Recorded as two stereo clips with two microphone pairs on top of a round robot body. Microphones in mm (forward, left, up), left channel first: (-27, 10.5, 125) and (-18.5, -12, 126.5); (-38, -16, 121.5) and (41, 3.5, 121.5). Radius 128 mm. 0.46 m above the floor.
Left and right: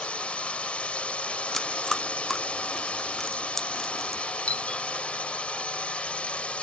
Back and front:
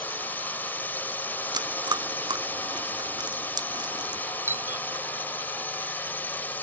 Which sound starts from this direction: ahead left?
Chewing, at 1.5 s.